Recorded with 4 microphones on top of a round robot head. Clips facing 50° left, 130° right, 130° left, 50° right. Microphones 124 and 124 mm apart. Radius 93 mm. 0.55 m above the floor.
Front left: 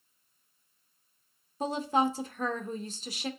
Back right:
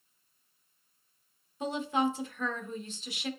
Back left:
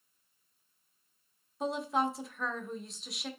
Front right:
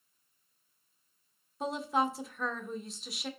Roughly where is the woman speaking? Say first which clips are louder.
Front left 2 dB, even; ahead left.